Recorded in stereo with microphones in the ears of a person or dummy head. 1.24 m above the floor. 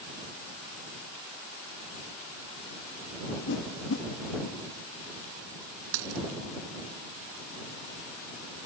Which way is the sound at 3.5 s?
60° left (ahead or behind).